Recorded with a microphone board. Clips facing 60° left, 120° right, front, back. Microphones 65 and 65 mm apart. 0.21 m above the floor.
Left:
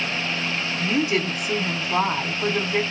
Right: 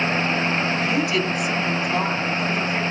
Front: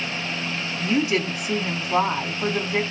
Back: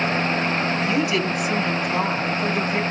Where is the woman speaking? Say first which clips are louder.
Right 1 dB, back 1 dB; 35° left, 1.2 m.